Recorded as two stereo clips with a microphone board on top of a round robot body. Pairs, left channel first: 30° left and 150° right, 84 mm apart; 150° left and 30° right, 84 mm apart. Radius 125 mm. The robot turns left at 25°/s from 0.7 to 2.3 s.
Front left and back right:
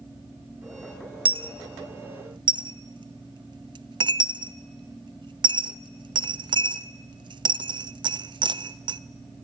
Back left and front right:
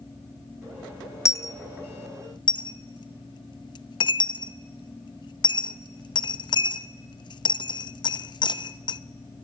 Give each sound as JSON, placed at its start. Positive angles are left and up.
{"t": 1.2, "sound": "a dropped coin", "azimuth_deg": -155, "distance_m": 0.6}